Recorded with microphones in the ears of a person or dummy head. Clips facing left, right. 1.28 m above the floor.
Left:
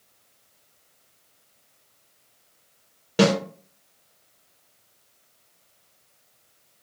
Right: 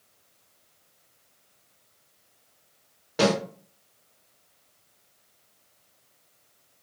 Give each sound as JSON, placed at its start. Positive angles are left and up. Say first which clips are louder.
{"t": 3.2, "sound": "a snare drum", "louder": "left 3 dB", "side_deg": 40, "distance_m": 1.0}